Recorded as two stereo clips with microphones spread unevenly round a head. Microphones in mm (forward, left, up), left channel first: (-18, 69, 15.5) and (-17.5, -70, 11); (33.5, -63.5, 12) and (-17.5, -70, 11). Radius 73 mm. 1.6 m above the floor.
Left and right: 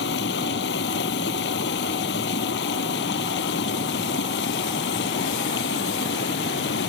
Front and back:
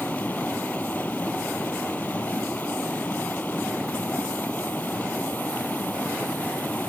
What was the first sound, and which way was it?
Running water, 85° left.